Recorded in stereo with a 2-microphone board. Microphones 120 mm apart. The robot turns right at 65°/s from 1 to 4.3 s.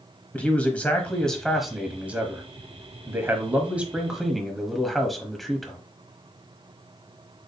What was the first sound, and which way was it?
A man speaking, 10° left (ahead or behind).